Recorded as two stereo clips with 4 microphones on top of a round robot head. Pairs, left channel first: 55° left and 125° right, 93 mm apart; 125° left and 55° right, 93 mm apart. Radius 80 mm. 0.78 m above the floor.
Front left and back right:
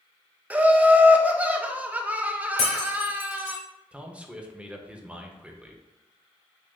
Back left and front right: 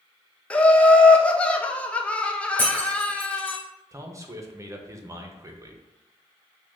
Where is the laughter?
175° right, 0.6 m.